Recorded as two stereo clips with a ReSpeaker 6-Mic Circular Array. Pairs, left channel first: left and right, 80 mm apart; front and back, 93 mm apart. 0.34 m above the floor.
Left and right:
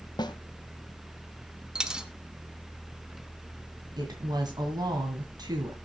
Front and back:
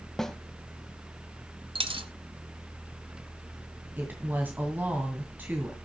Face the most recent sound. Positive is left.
turn(degrees=-110)